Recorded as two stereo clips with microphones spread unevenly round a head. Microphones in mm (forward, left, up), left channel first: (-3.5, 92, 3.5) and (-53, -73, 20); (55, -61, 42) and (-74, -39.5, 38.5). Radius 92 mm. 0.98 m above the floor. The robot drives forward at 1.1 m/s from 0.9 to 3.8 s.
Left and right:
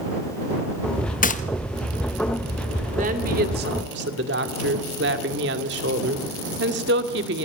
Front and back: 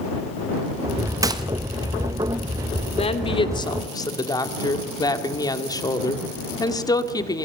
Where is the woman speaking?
55° right, 2.5 m; by 7.5 s 70° right, 2.5 m.